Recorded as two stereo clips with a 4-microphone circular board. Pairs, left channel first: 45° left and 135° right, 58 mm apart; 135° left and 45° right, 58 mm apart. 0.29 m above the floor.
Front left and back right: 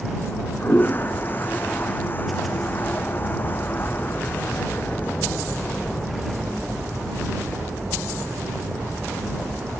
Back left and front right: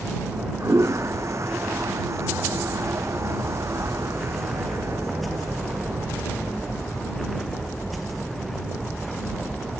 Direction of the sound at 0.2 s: 10° right.